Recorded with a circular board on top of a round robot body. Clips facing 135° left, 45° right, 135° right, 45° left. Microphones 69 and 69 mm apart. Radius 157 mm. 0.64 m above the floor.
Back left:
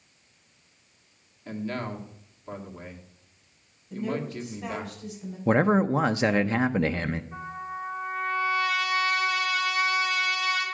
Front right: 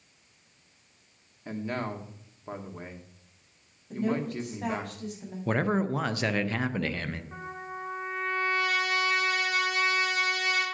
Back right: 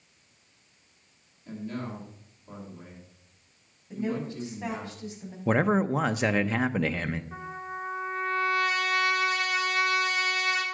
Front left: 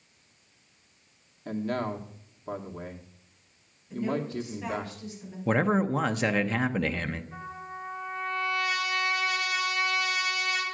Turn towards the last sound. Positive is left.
turn(degrees=-85)